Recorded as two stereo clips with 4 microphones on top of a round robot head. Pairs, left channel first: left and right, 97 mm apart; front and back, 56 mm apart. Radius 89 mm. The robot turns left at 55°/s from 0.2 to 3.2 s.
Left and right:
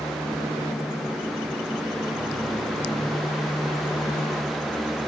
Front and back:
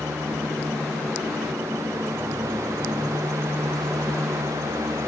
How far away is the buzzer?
No buzzer in this recording.